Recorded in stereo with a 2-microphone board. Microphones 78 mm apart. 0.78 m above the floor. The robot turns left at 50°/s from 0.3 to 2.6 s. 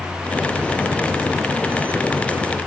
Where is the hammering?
No hammering in this recording.